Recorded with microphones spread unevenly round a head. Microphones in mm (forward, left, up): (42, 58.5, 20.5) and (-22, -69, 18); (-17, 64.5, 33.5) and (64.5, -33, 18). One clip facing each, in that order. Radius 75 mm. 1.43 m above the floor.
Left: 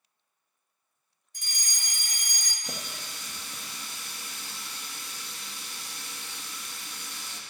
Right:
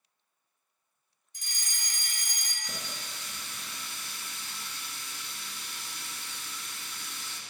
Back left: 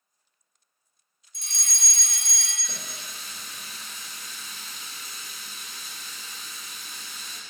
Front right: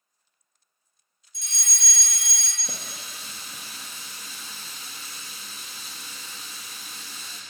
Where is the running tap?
10° left, 1.5 m.